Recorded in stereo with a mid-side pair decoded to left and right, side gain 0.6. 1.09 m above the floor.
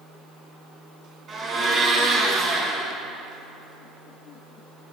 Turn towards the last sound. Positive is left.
turn(degrees=-45)